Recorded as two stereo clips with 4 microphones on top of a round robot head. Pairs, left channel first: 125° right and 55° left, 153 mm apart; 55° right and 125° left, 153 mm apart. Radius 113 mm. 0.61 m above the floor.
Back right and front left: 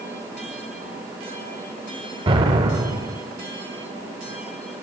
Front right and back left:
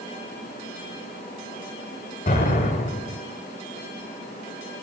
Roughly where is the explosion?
Ahead.